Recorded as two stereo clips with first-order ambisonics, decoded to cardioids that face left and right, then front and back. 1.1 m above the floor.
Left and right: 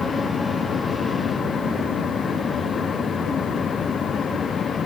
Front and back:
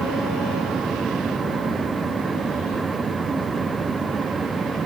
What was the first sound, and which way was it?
Only background noise.